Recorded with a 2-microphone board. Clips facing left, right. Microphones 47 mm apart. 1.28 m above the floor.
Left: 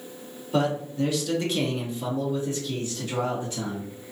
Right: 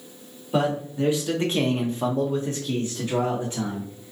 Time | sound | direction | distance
0.5 | a man speaking | 15° right (ahead or behind) | 1.0 m